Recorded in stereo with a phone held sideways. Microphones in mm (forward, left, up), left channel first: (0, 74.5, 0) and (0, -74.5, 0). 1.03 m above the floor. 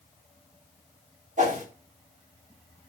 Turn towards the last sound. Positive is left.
turn(degrees=-55)  # may be behind; listen again after turning